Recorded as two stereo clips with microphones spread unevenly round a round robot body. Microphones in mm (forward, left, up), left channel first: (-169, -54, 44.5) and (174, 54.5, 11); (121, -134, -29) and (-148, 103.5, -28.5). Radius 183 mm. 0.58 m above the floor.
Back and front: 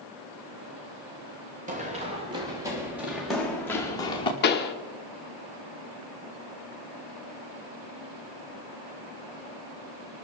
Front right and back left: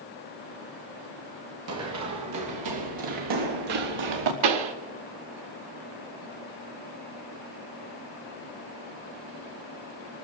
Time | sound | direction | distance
1.7 | running footsteps | 90° left | 3.5 m
4.4 | a pop | 135° left | 1.3 m